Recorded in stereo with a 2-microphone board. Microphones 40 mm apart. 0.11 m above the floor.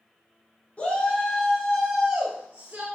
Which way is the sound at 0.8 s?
35° left (ahead or behind).